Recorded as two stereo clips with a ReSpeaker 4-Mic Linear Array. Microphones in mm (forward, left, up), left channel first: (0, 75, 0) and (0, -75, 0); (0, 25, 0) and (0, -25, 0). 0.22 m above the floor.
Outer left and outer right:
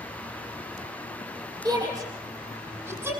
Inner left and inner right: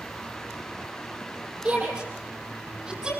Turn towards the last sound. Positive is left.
turn(degrees=-15)  # may be behind; listen again after turning